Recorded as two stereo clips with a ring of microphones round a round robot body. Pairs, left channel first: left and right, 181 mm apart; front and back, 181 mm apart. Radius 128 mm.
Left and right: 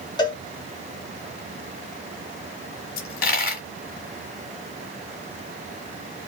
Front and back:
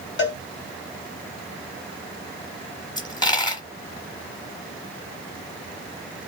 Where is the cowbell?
20° left, 1.5 m.